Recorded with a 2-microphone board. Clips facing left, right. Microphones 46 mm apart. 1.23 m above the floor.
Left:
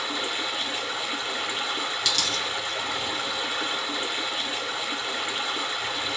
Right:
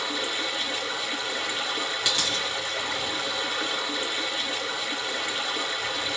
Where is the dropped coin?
20° right (ahead or behind), 1.1 m.